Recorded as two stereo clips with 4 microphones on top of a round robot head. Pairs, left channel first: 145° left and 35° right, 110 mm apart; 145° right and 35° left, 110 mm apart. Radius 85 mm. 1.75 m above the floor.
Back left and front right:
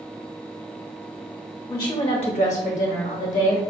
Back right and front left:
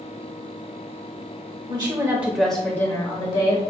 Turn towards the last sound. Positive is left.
turn(degrees=170)